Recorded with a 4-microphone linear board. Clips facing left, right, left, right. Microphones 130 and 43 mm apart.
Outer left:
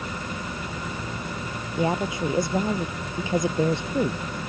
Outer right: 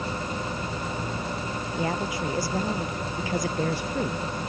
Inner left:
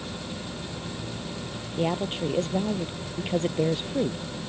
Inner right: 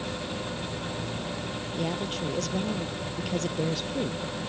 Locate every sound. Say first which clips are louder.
1.8 s a woman speaking: outer left 5 dB, inner left 5 dB; 25° left (ahead or behind)